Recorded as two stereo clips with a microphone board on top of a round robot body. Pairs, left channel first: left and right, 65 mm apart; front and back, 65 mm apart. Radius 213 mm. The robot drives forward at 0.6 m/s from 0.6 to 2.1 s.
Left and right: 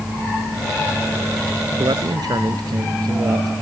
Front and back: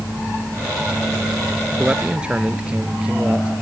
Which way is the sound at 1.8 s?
105° right.